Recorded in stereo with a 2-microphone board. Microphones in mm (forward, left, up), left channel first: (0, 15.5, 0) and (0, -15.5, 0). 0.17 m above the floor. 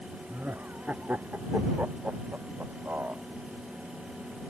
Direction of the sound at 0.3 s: 70° right (ahead or behind).